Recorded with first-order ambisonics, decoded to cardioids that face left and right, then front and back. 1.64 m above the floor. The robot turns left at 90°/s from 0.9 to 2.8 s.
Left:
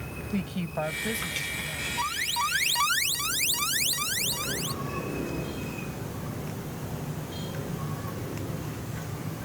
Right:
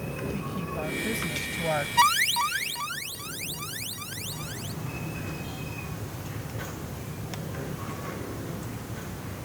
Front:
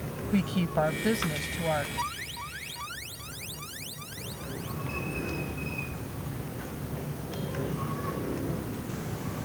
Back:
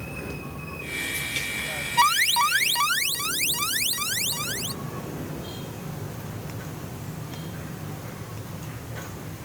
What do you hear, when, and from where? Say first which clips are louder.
0.3 s a woman speaking: left 1 dB, front 7 dB; 20° left; by 1.9 s 70° right
2.0 s an alarm: right 7 dB, back 15 dB; 135° right; by 4.8 s 150° left